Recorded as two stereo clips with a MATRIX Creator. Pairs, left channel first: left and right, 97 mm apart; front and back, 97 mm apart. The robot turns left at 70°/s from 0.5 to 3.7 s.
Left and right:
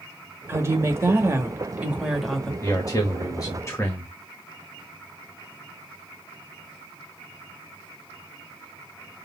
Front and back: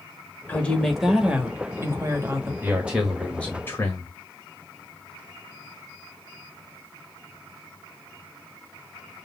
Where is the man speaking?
130° left, 1.4 m; by 4.1 s 50° left, 1.4 m.